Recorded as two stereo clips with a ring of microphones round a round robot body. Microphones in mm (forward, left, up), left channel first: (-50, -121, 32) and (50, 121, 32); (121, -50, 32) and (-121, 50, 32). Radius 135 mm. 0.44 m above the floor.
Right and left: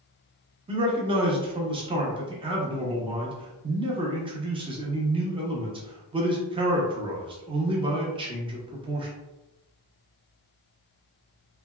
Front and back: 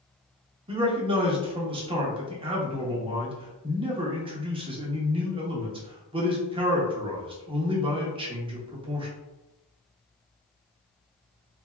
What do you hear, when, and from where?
0.7 s a man speaking: 115° left, 0.8 m